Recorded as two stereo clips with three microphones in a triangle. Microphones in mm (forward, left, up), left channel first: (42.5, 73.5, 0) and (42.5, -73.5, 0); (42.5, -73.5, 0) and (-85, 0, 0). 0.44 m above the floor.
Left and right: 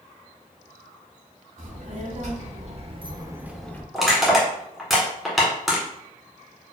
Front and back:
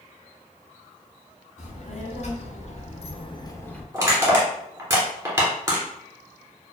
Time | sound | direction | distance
1.6 | a child speaking | 65° right | 1.5 m
3.9 | crushing | 175° left | 1.4 m